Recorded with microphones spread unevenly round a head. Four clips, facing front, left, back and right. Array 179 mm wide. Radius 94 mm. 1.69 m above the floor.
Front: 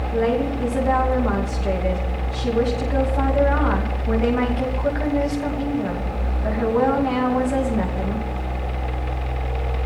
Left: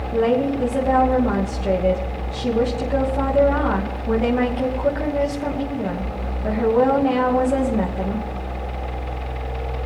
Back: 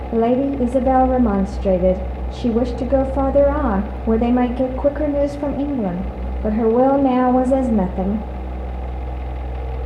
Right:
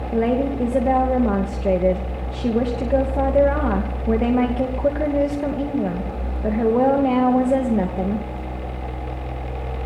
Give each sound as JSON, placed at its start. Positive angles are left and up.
{"t": 0.1, "sound": "a woman speaking", "azimuth_deg": -155, "distance_m": 2.5}